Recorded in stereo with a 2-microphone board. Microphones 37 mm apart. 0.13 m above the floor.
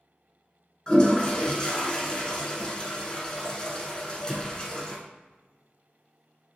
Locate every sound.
0.9 s a toilet flushing: 25° left (ahead or behind), 0.6 m